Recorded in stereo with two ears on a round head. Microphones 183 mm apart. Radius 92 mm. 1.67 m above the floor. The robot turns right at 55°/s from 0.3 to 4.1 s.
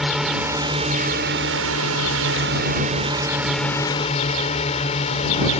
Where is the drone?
Straight behind; by 5.6 s 30° left.